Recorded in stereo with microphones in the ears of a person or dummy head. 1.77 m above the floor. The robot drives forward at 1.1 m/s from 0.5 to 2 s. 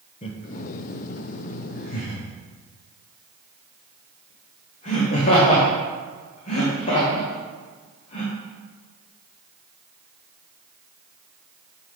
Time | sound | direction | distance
0.2 | laughter | 35° left (ahead or behind) | 1.0 m